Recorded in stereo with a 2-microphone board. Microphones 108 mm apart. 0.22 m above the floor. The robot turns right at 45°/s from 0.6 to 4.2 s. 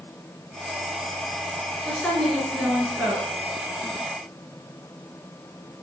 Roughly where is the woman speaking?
Behind left.